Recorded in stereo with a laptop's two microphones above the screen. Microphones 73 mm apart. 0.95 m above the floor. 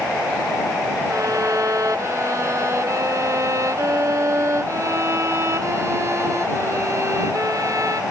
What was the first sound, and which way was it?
A violin, 40° right (ahead or behind).